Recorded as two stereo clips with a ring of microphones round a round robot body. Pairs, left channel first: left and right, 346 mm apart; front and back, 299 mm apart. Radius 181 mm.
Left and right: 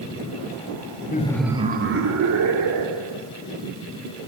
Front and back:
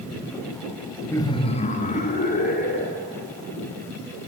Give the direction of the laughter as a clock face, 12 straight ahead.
10 o'clock.